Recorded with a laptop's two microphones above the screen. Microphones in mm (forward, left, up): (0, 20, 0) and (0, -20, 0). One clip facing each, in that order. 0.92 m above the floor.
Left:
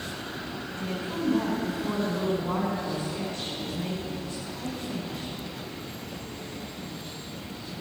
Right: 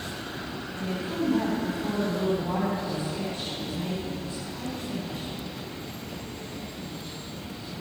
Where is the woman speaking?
30° right (ahead or behind), 3.5 m.